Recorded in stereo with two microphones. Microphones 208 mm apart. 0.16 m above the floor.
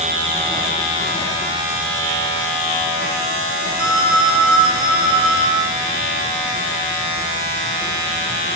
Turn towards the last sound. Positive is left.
turn(degrees=-80)